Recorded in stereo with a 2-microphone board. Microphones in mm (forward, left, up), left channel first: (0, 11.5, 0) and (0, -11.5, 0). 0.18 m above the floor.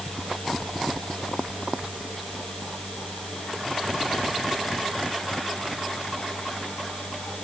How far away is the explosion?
I don't hear an explosion.